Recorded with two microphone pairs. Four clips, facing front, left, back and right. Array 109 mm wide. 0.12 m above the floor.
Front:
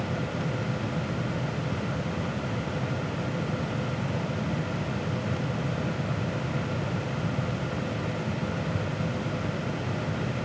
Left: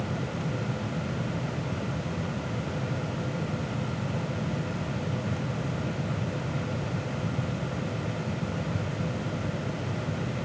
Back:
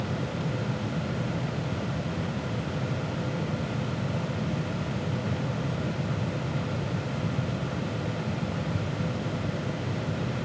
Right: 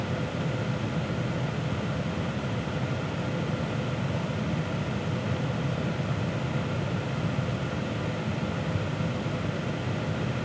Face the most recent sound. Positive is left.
No sound to turn to.